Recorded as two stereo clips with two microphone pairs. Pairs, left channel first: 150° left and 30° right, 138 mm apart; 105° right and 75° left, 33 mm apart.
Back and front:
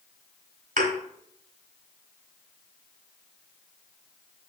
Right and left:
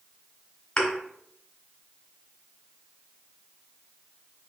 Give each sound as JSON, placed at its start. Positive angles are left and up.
{"t": 0.8, "sound": "a thud", "azimuth_deg": -40, "distance_m": 2.0}